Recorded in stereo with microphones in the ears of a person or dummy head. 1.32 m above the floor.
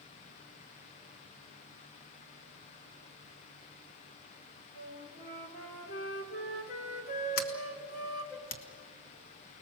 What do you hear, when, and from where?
4.8 s a flute: 50° left (ahead or behind), 3 m
7.4 s a sliding door: 50° left (ahead or behind), 1.1 m